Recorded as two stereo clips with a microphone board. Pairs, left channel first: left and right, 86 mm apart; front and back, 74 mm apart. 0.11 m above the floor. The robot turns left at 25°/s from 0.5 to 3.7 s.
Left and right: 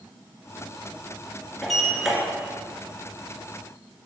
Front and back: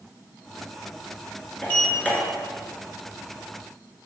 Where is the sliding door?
Straight ahead, 1.6 m; by 2.2 s 15° right, 1.6 m.